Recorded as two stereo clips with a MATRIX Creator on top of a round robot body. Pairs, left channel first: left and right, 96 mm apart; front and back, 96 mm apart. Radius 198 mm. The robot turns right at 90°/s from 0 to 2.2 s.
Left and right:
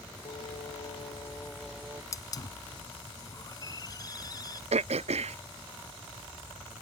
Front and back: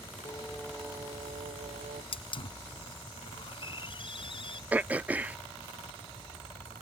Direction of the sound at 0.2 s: 55° left.